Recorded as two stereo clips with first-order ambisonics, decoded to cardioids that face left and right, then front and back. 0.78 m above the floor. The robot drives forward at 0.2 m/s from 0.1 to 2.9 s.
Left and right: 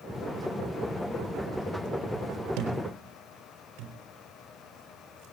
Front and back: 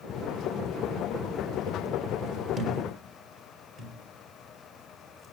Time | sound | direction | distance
2.6 | a thud | 115° right | 4 m